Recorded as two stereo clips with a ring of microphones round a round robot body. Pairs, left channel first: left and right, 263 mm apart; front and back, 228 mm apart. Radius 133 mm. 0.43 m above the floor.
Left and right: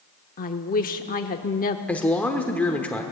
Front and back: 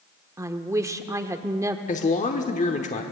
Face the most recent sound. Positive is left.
turn(degrees=10)